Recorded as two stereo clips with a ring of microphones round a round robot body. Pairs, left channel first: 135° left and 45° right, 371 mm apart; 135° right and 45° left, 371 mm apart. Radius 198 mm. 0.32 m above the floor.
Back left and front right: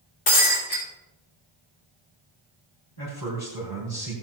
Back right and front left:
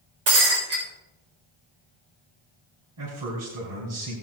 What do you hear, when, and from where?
0.3 s breaking glass: 100° left, 6 m
3.0 s a man speaking: 90° left, 3 m